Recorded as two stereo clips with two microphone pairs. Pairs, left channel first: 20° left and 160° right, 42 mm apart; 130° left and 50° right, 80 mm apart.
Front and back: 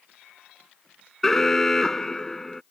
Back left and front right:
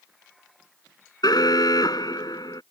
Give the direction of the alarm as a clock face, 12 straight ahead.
9 o'clock.